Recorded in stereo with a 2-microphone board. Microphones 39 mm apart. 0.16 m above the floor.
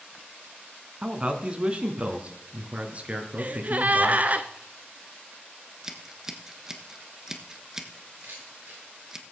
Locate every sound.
1.0 s a man speaking: 25° right (ahead or behind), 1.4 m; by 4.4 s 40° right (ahead or behind), 3 m
3.4 s a gasp: 40° right (ahead or behind), 0.8 m
5.8 s scissors: 10° right (ahead or behind), 1.2 m
8.2 s a camera shutter: 55° right (ahead or behind), 8 m